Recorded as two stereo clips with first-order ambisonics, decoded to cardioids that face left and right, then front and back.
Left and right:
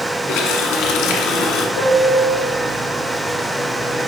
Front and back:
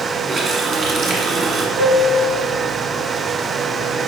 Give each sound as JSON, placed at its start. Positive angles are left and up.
{"t": 0.3, "sound": "a running tap", "azimuth_deg": 120, "distance_m": 1.4}
{"t": 1.8, "sound": "a piano", "azimuth_deg": 135, "distance_m": 3.5}